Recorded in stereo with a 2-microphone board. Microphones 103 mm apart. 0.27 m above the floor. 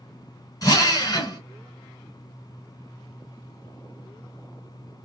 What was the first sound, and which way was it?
A drill, 35° left (ahead or behind).